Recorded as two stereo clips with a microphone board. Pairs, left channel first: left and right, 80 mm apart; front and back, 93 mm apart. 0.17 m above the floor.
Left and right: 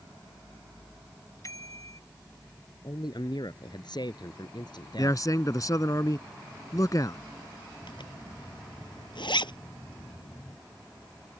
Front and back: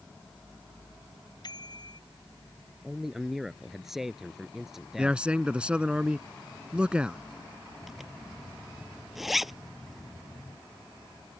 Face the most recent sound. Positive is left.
turn(degrees=95)